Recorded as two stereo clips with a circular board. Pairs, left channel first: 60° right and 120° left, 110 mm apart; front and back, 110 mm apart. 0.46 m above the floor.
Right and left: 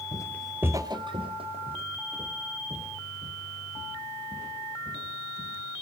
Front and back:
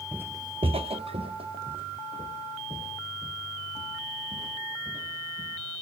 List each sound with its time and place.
0.1 s footsteps: 100° right, 0.7 m; by 5.5 s 135° left, 7 m